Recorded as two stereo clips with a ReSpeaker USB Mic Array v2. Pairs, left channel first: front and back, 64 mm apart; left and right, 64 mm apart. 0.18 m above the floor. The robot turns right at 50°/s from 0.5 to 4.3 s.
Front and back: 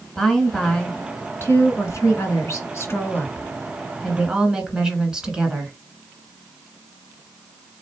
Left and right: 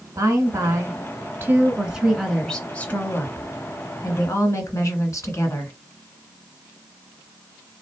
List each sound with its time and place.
0.1 s a woman speaking: 85° right, 1.6 m; by 5.7 s 105° left, 1.6 m